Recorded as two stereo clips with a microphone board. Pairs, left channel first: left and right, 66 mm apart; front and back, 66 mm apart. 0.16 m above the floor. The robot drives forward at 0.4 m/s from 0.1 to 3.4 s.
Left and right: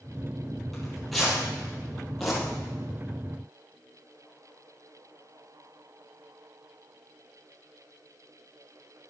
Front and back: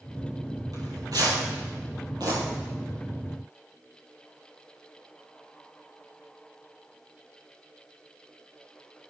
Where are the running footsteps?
No running footsteps in this recording.